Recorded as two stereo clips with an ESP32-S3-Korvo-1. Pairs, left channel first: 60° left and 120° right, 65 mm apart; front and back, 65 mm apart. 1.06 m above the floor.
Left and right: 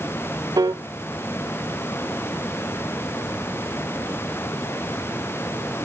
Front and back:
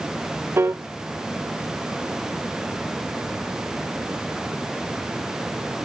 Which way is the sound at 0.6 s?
125° right.